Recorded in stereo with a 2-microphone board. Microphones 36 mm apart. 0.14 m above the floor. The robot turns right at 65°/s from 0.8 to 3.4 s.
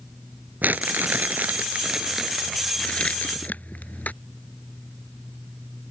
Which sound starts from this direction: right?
Crumpling, at 0.6 s.